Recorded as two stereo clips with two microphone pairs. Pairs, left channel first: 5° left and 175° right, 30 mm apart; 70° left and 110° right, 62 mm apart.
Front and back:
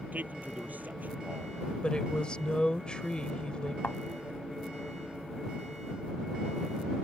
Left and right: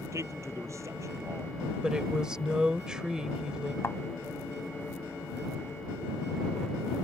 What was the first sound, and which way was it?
A man speaking, 145° right.